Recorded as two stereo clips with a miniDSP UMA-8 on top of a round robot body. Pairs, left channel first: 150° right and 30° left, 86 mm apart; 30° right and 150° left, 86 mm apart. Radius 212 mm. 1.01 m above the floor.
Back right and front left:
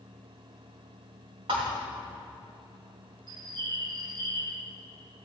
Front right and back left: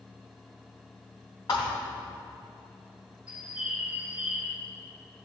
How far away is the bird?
About 0.7 m.